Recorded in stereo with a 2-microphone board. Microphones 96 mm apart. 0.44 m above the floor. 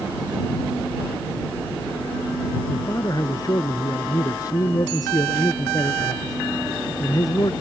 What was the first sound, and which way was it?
A man speaking, 40° left (ahead or behind).